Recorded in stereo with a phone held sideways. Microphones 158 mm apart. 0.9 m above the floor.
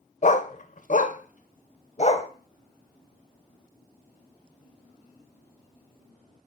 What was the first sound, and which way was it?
A dog barking, 50° left (ahead or behind).